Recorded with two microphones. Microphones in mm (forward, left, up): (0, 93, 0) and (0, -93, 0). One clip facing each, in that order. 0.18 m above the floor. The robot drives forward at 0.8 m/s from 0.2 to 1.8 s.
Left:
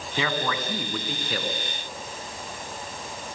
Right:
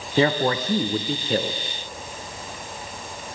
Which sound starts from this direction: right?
A man speaking, at 0.2 s.